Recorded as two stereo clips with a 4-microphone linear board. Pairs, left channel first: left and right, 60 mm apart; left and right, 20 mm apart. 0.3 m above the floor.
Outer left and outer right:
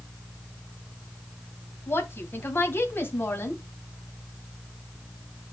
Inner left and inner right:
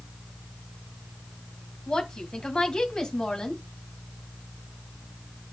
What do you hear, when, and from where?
1.9 s a woman speaking: 40° left (ahead or behind), 2 m